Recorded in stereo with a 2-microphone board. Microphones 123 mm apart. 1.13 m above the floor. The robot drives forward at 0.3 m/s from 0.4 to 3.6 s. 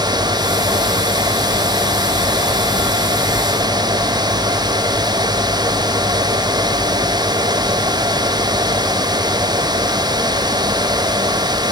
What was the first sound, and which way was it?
Only background noise.